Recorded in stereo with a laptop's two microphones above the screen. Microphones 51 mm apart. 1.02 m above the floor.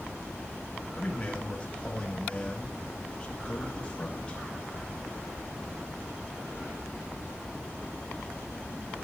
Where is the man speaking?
20° left (ahead or behind), 1.5 m.